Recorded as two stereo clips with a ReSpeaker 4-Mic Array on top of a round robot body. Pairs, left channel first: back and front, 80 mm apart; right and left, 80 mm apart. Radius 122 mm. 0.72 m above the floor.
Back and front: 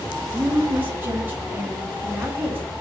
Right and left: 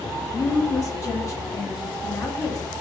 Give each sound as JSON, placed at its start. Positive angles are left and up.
{"t": 0.2, "sound": "a woman speaking", "azimuth_deg": -60, "distance_m": 1.3}